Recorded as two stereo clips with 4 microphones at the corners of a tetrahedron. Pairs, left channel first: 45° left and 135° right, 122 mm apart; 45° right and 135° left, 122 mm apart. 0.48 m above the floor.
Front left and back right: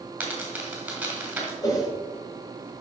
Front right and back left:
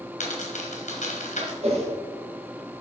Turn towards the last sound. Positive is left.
turn(degrees=105)